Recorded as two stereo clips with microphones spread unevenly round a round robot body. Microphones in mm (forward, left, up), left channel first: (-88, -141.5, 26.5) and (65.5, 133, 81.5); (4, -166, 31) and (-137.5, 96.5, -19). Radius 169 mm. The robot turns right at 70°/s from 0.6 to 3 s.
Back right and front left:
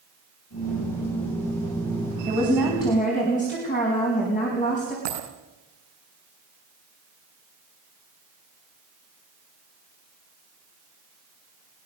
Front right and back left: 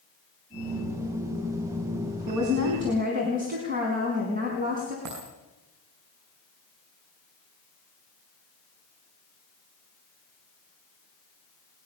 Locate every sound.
2.3 s a woman speaking: 125° left, 4.5 m; by 5.0 s 175° left, 4.5 m
5.0 s a dropped coin: 70° left, 8.5 m